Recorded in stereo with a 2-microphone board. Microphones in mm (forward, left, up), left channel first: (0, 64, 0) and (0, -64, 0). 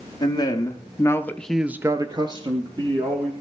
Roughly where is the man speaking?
Left.